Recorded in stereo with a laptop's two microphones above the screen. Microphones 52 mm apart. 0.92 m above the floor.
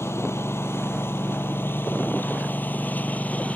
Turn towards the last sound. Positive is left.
turn(degrees=25)  # may be behind; listen again after turning